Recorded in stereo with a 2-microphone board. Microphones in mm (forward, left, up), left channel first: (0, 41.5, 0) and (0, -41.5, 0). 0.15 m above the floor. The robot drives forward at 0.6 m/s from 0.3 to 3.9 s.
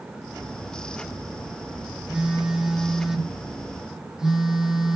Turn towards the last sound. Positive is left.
turn(degrees=-5)  # may be behind; listen again after turning